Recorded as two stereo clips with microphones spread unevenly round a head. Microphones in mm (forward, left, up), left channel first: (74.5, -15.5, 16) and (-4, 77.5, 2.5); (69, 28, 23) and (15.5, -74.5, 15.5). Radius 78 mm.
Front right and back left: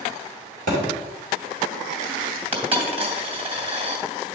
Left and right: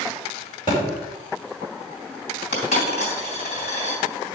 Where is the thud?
125° left, 4.5 m.